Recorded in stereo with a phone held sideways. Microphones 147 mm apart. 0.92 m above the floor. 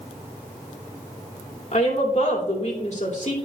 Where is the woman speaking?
55° left (ahead or behind), 2.5 m.